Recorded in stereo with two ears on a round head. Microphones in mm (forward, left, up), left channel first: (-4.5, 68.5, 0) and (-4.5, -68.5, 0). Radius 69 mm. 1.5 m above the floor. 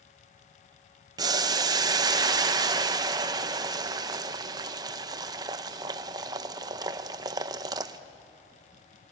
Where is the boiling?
25° right (ahead or behind), 0.6 m.